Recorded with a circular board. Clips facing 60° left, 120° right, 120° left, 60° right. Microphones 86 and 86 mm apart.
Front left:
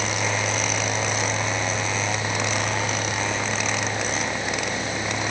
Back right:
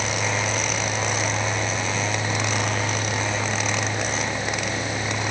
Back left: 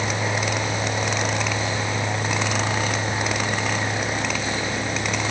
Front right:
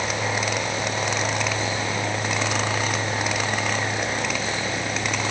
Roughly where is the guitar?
I don't hear a guitar.